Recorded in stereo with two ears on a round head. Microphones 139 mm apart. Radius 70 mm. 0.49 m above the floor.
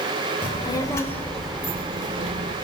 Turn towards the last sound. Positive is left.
turn(degrees=-50)  # may be behind; listen again after turning